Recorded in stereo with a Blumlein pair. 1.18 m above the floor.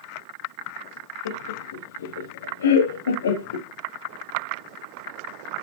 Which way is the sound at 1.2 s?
65° left.